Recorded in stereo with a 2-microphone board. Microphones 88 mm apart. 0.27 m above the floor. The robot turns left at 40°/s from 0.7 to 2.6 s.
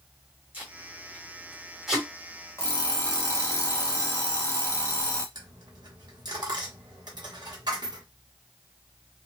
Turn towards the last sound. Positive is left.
turn(degrees=-50)  # may be behind; listen again after turning